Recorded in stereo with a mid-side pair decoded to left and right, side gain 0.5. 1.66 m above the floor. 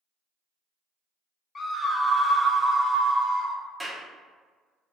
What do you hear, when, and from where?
1.6 s a scream: 35° left, 0.7 m; by 3.6 s 60° right, 1.3 m
3.8 s a clap: 10° right, 1.1 m